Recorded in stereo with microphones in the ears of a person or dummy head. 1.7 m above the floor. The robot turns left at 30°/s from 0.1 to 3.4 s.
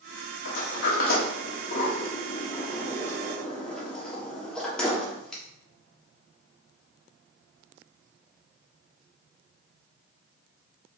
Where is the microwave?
No microwave in this recording.